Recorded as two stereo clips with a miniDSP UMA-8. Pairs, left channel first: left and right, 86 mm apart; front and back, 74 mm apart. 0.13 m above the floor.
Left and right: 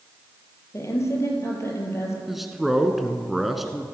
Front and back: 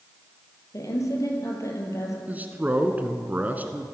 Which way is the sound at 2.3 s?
175° right.